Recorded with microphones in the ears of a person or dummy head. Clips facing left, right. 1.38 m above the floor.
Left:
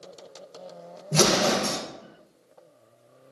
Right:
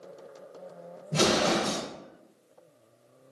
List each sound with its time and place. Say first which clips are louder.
1.1 s an explosion: left 2 dB; 55° left (ahead or behind), 0.7 m